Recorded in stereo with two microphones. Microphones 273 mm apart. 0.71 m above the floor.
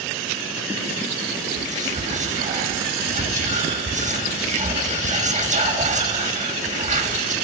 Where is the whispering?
25° right (ahead or behind), 1.4 m.